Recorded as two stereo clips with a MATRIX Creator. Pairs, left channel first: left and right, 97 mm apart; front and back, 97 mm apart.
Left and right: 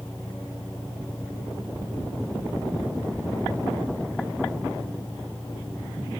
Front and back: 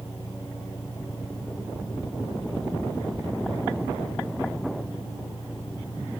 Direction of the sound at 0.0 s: 10° left.